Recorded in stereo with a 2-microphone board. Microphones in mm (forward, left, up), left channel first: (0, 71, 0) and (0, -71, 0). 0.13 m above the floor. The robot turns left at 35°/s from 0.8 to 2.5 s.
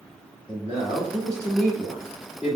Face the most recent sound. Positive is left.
turn(degrees=-175)